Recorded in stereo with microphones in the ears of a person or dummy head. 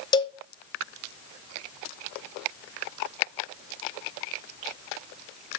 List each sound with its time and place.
0.1 s a cowbell: 15° left (ahead or behind), 0.6 m